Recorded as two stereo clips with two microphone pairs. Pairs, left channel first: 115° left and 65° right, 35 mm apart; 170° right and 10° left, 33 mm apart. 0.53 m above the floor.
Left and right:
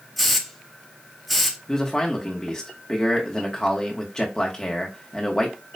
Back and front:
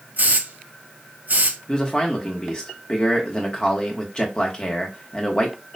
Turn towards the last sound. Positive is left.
turn(degrees=165)